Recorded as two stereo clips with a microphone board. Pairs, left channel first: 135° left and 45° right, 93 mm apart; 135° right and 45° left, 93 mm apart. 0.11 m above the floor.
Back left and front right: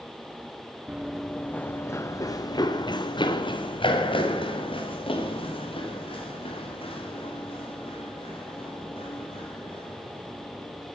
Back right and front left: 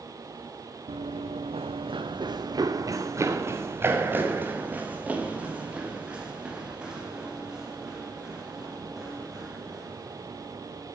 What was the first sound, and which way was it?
Running footsteps, 35° left.